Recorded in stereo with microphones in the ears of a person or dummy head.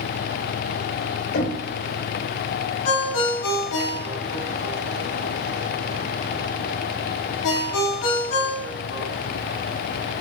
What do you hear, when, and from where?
1.3 s knocking: 65° left (ahead or behind), 4 m
2.9 s a ringtone: 70° left (ahead or behind), 1.9 m